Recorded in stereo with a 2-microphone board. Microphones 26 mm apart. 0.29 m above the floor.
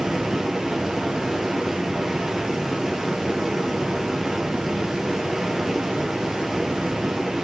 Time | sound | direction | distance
0.0 | running water | 20° right (ahead or behind) | 1.2 m